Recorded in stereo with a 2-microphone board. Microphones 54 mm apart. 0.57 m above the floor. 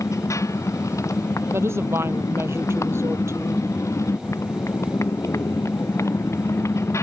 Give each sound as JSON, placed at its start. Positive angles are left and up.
{"t": 0.0, "sound": "a motorcycle", "side_deg": 75}
{"t": 1.5, "sound": "a woman speaking", "side_deg": -55}